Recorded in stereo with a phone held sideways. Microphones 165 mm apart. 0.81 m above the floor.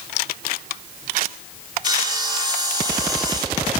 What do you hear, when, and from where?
1.8 s sawing: 25° right (ahead or behind), 0.9 m